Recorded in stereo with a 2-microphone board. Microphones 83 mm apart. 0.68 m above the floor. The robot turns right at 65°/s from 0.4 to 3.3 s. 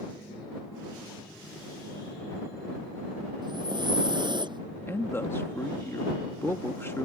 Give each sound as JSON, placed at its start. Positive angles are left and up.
{"t": 3.4, "sound": "breathing", "side_deg": -60}
{"t": 4.9, "sound": "a man speaking", "side_deg": 25}